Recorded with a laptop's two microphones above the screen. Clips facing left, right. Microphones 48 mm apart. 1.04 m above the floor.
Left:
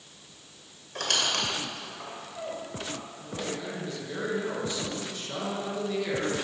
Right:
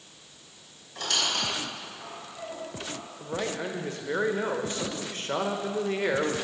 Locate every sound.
0.9 s a squeak: 65° left (ahead or behind), 2.5 m
3.2 s a man speaking: 45° right (ahead or behind), 1.1 m